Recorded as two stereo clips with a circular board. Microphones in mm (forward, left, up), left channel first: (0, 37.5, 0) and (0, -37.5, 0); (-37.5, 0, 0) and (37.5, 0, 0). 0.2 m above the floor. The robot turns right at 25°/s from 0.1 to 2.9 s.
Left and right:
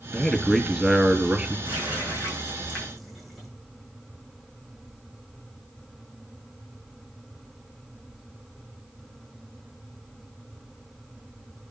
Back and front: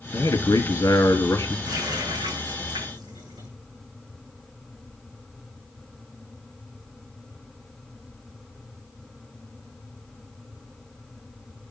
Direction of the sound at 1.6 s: 30° right.